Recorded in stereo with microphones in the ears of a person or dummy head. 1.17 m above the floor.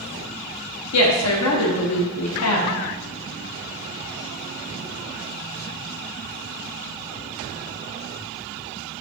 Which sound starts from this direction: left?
A woman speaking, at 0.9 s.